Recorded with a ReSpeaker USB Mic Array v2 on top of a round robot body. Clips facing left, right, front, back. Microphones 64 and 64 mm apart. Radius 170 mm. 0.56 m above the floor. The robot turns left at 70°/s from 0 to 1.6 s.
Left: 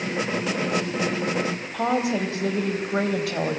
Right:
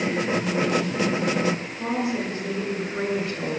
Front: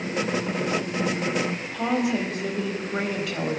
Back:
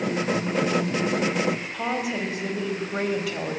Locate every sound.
1.7 s a woman speaking: 90° left, 4 m